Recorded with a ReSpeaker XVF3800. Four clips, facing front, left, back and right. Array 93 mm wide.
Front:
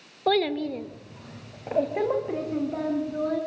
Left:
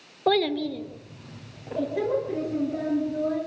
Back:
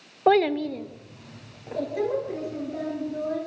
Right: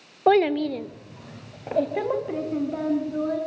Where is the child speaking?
145° right, 1.0 m; by 3.4 s 45° right, 5 m.